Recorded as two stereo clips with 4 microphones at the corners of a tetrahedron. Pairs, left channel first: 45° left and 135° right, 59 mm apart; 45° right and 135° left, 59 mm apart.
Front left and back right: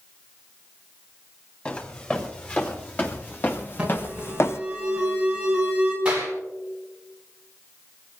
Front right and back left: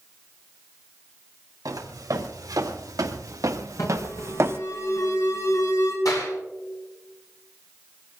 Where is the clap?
65° right, 7.5 m.